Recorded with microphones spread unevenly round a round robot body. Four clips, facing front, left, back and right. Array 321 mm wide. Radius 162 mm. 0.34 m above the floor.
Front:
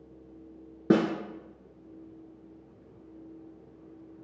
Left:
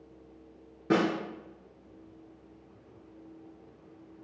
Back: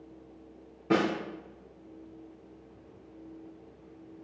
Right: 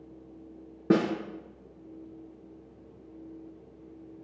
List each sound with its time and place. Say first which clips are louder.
0.9 s a snare drum: right 2 dB, front 3 dB; 35° right, 1.0 m